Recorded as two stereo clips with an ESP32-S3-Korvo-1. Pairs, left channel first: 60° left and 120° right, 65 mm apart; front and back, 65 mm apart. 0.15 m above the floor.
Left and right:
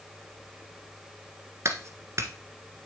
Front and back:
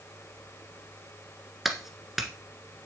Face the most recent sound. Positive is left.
turn(degrees=-95)